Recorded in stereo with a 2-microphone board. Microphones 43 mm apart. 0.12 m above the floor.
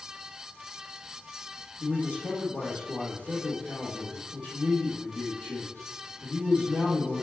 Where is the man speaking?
50° left (ahead or behind), 4 m.